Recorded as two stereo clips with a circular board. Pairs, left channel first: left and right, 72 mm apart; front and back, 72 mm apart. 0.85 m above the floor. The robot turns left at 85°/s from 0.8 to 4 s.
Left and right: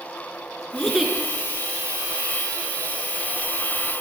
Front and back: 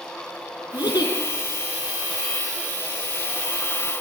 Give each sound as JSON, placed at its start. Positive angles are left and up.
{"t": 0.7, "sound": "a giggle", "azimuth_deg": 10, "distance_m": 4.0}